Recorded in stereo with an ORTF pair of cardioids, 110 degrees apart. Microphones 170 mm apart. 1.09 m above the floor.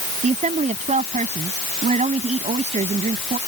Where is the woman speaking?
45° right.